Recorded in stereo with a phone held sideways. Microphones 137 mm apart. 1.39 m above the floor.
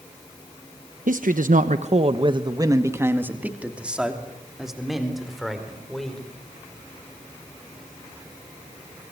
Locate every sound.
1.1 s a man speaking: 75° right (ahead or behind), 1.1 m; by 6.2 s 5° left (ahead or behind), 5 m